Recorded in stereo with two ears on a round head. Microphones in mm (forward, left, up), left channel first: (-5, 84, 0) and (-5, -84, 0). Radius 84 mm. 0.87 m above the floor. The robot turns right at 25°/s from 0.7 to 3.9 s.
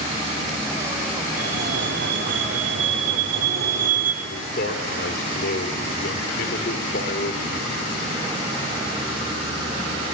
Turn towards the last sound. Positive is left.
turn(degrees=55)  # may be behind; listen again after turning